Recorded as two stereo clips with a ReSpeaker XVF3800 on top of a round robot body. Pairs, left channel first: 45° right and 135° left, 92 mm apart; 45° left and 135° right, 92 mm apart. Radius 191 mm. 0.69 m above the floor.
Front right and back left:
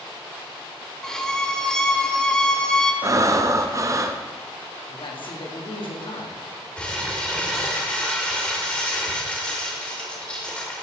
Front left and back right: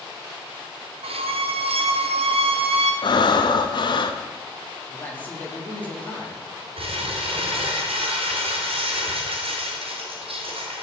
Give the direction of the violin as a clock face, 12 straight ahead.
4 o'clock.